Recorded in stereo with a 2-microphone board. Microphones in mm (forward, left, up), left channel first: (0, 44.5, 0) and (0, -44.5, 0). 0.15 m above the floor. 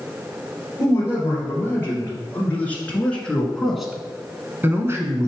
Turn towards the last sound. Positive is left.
turn(degrees=-35)  # may be behind; listen again after turning